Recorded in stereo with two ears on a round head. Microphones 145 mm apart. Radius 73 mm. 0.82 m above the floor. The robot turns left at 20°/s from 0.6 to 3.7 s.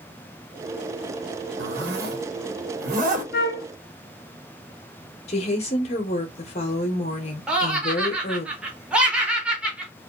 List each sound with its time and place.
1.6 s a zipper: 85° right, 1.1 m; by 3.2 s 50° right (ahead or behind), 1.1 m
3.3 s a flute: 65° left (ahead or behind), 0.7 m; by 3.7 s 70° left (ahead or behind), 0.7 m
5.3 s a woman speaking: 40° left (ahead or behind), 0.9 m
7.5 s laughter: 5° right (ahead or behind), 0.9 m